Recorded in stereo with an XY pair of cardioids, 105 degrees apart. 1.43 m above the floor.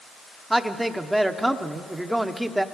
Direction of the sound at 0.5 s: 10° right.